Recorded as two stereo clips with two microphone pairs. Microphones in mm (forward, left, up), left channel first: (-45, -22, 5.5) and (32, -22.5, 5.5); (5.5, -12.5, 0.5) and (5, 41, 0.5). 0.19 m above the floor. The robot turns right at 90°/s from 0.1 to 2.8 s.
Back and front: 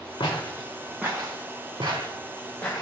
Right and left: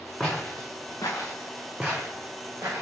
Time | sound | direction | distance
0.2 | footsteps | 170° right | 1.3 m